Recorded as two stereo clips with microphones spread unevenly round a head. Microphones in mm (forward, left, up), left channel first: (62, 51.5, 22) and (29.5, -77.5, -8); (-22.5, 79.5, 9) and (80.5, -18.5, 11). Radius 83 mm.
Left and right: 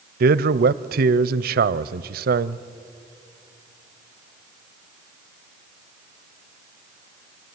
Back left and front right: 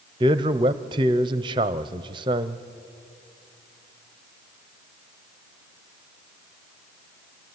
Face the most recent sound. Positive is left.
turn(degrees=-105)